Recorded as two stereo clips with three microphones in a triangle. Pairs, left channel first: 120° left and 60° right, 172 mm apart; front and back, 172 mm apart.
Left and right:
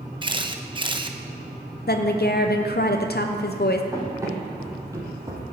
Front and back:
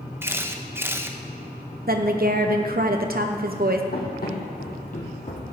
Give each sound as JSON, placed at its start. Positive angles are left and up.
{"t": 0.2, "sound": "a camera shutter", "azimuth_deg": -110, "distance_m": 0.7}
{"t": 1.9, "sound": "a woman speaking", "azimuth_deg": 145, "distance_m": 0.7}
{"t": 3.9, "sound": "running footsteps", "azimuth_deg": 10, "distance_m": 3.5}